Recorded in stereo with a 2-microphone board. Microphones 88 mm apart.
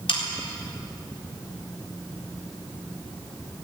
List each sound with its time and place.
0.1 s sawing: 70° left (ahead or behind), 3.5 m